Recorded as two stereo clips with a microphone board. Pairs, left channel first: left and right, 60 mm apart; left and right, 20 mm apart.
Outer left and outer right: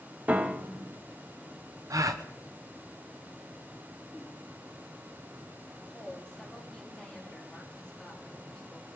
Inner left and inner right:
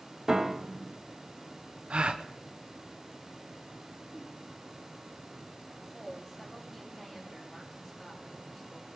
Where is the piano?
25° right (ahead or behind), 0.7 m.